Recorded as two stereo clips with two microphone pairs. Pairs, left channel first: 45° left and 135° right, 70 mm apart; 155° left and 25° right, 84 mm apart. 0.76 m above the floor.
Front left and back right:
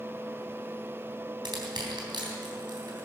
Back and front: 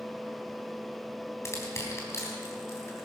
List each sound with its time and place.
1.4 s crushing: 145° right, 3.5 m